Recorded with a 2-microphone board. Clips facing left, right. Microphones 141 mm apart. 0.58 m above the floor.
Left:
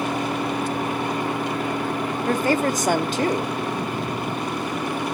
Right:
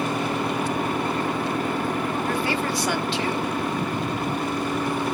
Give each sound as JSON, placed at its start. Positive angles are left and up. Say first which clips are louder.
{"t": 2.3, "sound": "a woman speaking", "louder": "left 4 dB", "side_deg": 45, "distance_m": 0.8}